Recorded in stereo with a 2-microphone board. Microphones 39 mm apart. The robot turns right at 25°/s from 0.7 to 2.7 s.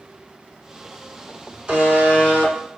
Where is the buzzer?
20° right (ahead or behind), 1.1 m; by 2.8 s 25° right (ahead or behind), 1.1 m.